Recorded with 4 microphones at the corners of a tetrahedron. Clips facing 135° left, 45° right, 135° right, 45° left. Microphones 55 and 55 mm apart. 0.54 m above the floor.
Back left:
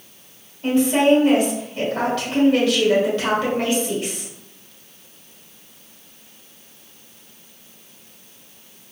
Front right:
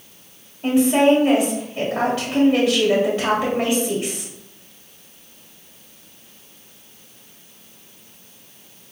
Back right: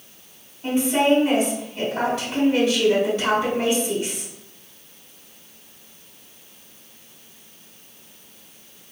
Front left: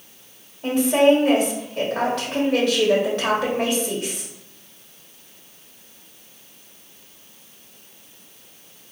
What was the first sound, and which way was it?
A woman speaking, 30° left.